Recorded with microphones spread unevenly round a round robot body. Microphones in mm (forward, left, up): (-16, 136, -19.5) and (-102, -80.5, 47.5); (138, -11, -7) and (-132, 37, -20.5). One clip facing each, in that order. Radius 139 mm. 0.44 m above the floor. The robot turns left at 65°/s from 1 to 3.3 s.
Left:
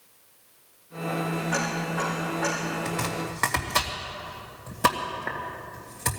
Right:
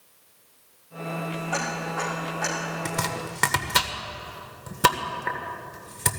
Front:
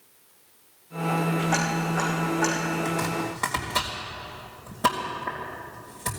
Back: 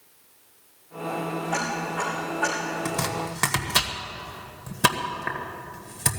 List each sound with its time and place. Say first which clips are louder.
1.5 s ticking: left 2 dB, front 3 dB; 5° right, 6.5 m; by 2.6 s 75° right, 6.5 m
2.9 s chopping: left 1 dB, front 2 dB; 125° right, 1.7 m; by 6.2 s 155° right, 1.7 m